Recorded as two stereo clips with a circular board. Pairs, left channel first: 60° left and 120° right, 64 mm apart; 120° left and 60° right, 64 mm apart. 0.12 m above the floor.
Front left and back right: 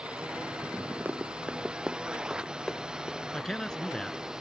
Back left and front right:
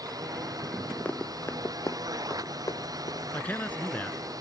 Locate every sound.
0.0 s a drone: 45° right; by 4.4 s 40° right
1.1 s running footsteps: 175° right; by 3.2 s 140° left
3.3 s a man speaking: 130° left